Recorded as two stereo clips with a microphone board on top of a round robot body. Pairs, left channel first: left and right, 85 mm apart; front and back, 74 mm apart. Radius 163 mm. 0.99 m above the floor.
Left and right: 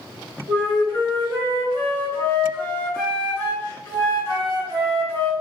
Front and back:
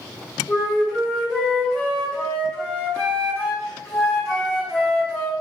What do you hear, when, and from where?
0.5 s a flute: 70° right, 2 m